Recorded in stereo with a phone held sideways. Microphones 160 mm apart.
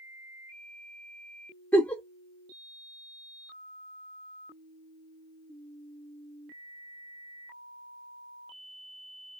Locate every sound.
1.7 s a giggle: 10° left (ahead or behind), 0.6 m